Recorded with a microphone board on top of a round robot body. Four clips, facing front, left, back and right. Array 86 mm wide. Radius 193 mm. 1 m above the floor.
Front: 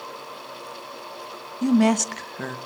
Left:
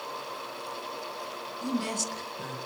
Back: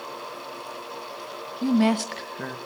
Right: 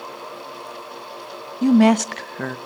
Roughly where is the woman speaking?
Right.